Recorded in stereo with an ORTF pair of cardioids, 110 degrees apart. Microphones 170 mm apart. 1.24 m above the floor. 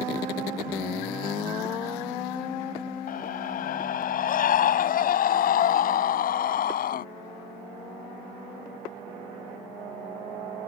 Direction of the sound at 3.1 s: 55° left.